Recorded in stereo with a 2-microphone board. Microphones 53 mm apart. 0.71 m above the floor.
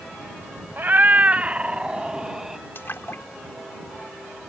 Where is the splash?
55° left (ahead or behind).